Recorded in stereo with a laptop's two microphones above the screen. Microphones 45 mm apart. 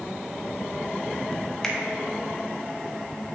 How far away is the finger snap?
About 0.7 m.